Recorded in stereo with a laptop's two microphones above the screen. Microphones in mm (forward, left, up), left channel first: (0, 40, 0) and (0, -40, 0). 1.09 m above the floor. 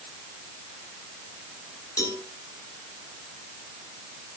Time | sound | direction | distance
2.0 | a cowbell | 50° left (ahead or behind) | 3 m